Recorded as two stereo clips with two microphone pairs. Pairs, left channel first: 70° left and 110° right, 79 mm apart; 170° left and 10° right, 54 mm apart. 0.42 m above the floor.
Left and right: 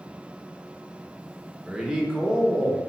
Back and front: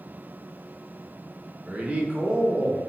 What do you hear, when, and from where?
1.7 s a man speaking: 35° right, 0.8 m